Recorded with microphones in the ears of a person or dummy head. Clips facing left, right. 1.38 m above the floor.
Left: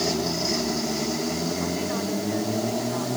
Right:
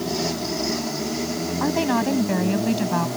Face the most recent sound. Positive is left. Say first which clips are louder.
# right 6 dB
turn(degrees=-85)